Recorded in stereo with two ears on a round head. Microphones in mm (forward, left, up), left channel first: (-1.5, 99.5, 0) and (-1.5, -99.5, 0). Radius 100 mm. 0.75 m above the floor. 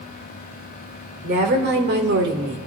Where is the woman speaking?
50° right (ahead or behind), 2.0 m; by 2.6 s 60° right (ahead or behind), 1.4 m.